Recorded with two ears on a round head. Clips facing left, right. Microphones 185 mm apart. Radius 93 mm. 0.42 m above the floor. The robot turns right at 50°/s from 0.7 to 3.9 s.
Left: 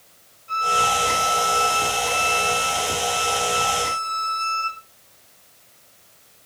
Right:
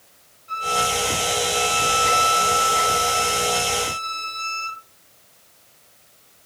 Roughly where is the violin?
Behind left.